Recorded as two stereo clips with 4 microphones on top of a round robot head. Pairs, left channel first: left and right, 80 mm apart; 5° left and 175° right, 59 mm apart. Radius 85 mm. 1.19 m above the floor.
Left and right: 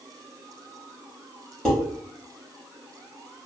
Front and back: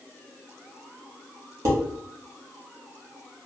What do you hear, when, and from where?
1.6 s dishes clattering: 170° left, 1.0 m